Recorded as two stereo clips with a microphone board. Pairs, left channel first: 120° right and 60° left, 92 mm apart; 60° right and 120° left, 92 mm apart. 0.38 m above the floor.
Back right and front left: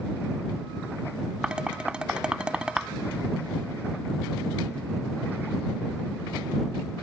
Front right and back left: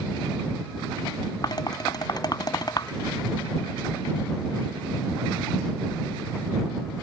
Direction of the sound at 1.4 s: 20° right.